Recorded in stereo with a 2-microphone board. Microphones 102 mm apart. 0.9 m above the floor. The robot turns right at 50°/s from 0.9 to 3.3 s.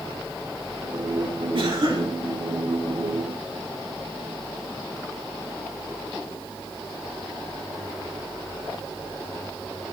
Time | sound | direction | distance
1.6 | a cough | 65° right (ahead or behind) | 2.5 m